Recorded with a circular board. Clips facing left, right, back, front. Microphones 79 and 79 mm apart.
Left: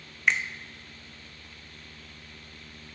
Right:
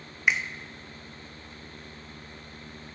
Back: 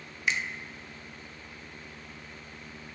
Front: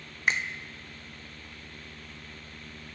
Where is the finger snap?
10° right, 0.6 m.